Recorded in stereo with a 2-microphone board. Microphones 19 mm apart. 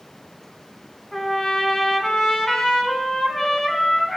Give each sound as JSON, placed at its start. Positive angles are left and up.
{"t": 1.1, "sound": "a trumpet", "side_deg": 25, "distance_m": 3.0}